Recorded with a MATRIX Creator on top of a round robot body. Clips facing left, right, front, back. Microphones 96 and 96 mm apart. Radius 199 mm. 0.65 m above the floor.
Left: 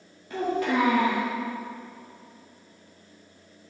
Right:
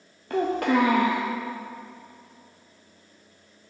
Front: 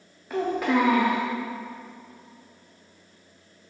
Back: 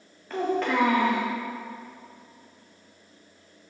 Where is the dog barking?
No dog barking in this recording.